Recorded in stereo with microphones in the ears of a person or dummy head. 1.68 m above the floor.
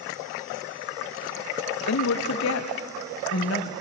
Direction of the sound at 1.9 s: 75° left (ahead or behind).